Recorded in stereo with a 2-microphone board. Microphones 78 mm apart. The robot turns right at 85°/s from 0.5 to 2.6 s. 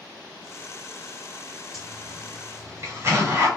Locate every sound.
1.7 s a zipper: centre (ahead or behind), 1.8 m; by 3.5 s 35° right (ahead or behind), 1.8 m